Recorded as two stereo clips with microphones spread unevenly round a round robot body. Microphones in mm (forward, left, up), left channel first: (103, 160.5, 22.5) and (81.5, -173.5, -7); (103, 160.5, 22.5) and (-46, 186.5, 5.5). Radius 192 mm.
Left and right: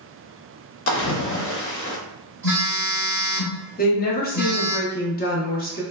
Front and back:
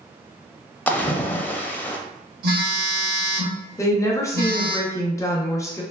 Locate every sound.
0.9 s a splash: 60° left, 0.5 m
2.4 s a phone buzzing: 175° right, 0.9 m
3.8 s a woman speaking: 50° left, 0.6 m